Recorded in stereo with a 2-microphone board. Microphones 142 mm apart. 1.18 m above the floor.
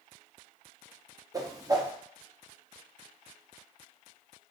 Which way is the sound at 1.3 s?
25° right (ahead or behind).